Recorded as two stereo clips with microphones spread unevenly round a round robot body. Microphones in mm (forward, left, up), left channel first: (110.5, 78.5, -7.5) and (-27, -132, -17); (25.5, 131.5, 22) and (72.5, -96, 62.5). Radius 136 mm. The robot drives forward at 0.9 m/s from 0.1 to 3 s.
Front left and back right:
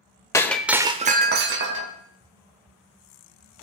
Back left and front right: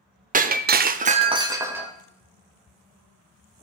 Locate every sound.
0.3 s breaking glass: 20° right, 0.7 m; by 1.9 s 165° right, 1.0 m